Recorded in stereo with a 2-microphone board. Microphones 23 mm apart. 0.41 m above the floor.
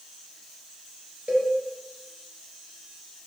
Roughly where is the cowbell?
Right.